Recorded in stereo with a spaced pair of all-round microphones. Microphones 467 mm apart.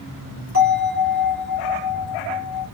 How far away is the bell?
About 2.5 m.